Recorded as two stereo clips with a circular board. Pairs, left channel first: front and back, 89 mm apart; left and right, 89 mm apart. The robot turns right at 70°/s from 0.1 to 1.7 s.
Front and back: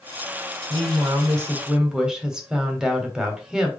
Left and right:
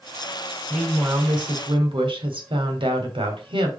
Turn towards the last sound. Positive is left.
turn(degrees=-95)